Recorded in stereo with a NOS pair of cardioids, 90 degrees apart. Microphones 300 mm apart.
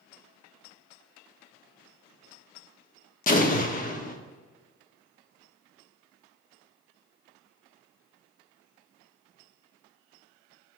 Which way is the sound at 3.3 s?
25° left.